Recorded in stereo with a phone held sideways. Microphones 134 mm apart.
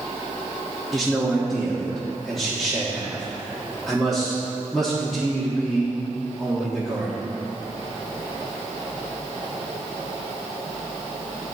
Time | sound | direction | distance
0.9 | a man speaking | centre (ahead or behind) | 1.4 m